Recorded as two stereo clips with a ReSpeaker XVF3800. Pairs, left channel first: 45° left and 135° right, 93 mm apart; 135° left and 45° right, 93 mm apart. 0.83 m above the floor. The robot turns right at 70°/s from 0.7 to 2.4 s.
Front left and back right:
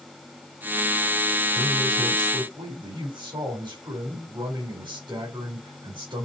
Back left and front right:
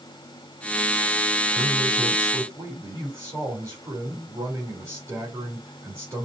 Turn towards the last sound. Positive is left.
turn(degrees=-100)